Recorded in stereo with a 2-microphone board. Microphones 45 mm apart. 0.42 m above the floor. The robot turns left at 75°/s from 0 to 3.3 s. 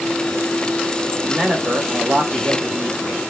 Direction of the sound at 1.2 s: Straight ahead.